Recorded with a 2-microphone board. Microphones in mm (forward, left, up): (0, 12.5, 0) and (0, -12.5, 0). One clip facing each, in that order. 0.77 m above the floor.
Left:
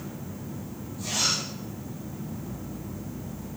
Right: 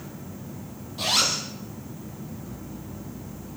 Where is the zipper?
75° right (ahead or behind), 5.5 m.